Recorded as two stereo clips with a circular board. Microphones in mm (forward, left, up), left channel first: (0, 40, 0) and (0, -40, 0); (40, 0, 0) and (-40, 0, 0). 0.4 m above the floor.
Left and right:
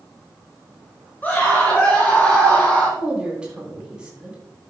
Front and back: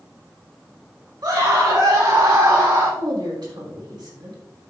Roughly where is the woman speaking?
Behind.